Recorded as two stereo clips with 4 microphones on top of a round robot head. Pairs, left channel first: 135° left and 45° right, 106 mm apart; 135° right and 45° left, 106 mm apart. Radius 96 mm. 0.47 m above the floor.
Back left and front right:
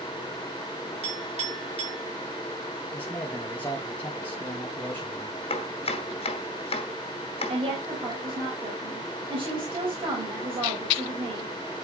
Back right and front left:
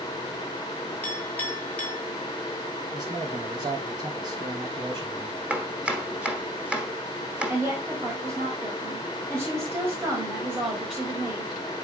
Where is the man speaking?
70° left, 2 m.